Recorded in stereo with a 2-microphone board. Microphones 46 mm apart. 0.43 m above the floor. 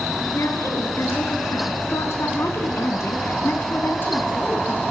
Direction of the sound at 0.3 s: 80° left.